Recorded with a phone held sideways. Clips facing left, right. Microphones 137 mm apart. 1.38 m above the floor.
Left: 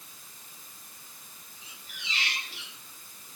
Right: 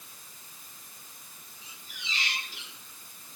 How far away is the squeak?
About 4 m.